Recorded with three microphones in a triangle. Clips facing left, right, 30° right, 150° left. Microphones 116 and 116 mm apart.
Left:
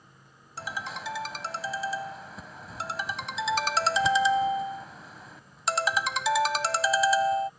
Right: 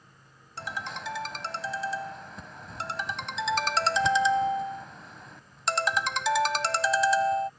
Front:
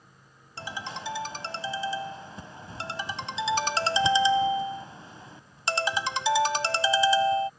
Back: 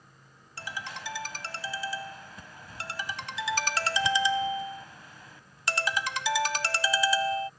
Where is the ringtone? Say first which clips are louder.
Even, front 3 dB; 5° left.